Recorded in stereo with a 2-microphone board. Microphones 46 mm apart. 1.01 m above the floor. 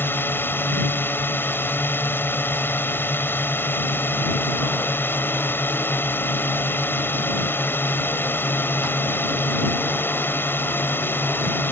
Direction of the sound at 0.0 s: 45° left (ahead or behind).